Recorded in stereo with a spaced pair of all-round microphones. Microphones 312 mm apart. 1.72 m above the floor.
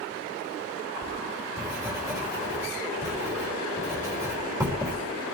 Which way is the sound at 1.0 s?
10° right (ahead or behind).